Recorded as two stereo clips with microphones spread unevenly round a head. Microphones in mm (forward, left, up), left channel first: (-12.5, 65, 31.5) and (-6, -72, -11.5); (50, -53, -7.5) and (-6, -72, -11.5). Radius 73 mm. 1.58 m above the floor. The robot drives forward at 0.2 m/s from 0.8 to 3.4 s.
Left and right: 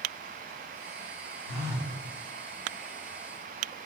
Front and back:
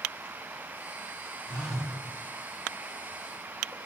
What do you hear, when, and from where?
1.5 s a phone buzzing: 70° right, 1.2 m; by 1.9 s 80° right, 1.2 m